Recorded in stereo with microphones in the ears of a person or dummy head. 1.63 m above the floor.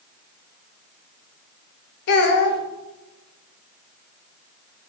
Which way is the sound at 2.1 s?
60° left (ahead or behind).